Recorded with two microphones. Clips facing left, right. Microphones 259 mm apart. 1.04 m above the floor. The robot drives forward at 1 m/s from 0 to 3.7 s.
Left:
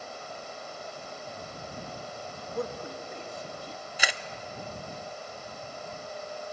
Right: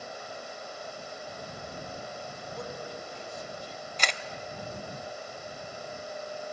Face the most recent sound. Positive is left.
turn(degrees=10)  # may be behind; listen again after turning